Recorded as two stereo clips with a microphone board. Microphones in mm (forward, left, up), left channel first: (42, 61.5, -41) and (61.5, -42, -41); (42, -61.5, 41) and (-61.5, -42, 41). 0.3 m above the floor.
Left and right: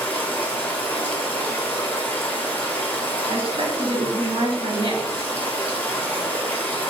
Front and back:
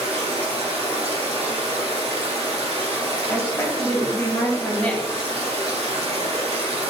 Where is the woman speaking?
80° right, 1.6 m.